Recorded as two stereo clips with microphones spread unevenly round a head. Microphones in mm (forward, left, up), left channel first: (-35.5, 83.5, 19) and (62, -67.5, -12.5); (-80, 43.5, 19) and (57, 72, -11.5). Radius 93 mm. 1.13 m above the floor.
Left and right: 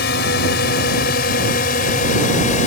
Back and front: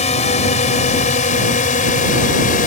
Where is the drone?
160° left; by 2.7 s 175° left.